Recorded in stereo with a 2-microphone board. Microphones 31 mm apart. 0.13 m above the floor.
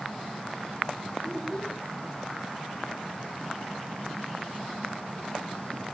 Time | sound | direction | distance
1.2 | a child speaking | 20° left (ahead or behind) | 5 m